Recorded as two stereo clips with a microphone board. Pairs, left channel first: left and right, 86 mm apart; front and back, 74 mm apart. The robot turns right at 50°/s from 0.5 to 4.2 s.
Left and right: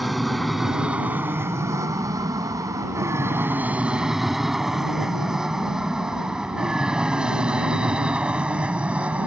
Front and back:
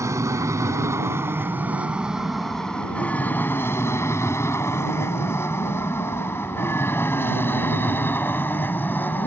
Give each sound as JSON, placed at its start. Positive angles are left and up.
{"t": 0.0, "sound": "an aircraft", "azimuth_deg": 180}